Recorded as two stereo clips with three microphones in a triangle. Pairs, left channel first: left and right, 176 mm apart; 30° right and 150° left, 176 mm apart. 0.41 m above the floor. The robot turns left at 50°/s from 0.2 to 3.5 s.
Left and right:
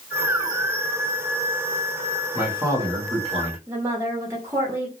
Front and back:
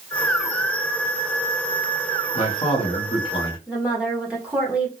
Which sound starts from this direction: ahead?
A man speaking, at 2.4 s.